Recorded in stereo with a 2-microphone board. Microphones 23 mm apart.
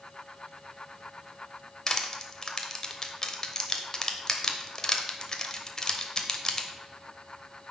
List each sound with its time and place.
1.9 s crushing: 30° left (ahead or behind), 0.9 m